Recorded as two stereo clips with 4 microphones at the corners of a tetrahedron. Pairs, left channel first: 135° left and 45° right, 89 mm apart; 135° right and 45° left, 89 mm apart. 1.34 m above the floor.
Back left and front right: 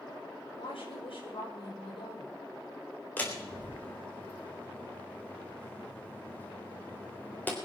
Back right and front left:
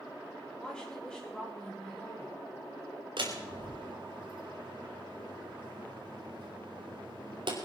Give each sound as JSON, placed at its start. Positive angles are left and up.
{"t": 0.6, "sound": "a woman speaking", "azimuth_deg": 145, "distance_m": 6.0}
{"t": 3.2, "sound": "a door slam", "azimuth_deg": 65, "distance_m": 3.5}